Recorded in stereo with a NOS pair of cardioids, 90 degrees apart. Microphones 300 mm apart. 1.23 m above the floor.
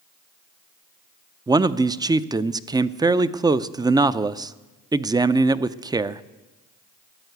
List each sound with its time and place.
1.5 s a man speaking: 15° right, 0.6 m